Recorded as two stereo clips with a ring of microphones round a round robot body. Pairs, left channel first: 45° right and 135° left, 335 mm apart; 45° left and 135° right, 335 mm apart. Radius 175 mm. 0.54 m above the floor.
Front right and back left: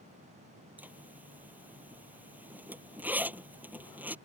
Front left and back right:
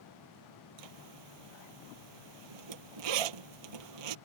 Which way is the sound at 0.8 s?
140° right.